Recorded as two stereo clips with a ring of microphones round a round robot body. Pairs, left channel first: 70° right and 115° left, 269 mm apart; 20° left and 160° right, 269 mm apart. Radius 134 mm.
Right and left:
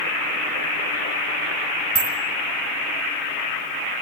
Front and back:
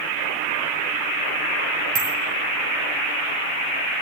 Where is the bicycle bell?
165° right, 8.5 m.